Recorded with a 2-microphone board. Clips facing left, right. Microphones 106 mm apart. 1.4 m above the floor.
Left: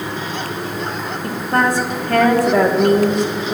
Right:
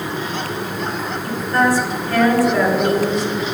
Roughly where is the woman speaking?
Left.